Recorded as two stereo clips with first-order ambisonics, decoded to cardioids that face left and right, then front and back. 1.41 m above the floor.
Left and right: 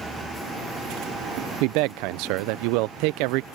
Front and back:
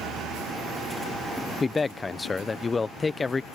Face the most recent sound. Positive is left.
turn(degrees=-75)